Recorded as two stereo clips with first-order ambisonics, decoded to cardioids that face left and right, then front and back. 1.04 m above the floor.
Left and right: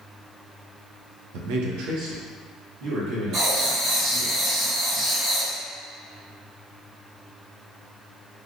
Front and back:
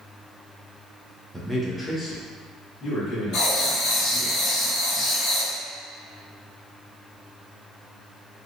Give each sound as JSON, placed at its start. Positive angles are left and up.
{"t": 1.3, "sound": "a man speaking", "azimuth_deg": -95, "distance_m": 0.6}
{"t": 3.3, "sound": "writing", "azimuth_deg": -40, "distance_m": 1.3}